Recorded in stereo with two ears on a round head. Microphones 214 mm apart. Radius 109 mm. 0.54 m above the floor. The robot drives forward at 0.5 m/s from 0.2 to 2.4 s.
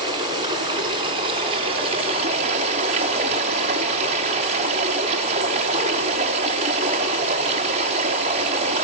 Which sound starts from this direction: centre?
Running water, at 0.0 s.